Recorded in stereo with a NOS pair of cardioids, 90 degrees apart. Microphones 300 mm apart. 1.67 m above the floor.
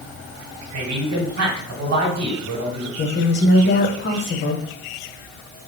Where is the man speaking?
65° right, 1.3 m.